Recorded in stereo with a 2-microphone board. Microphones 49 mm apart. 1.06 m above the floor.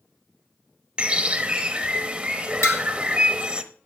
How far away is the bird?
About 0.9 m.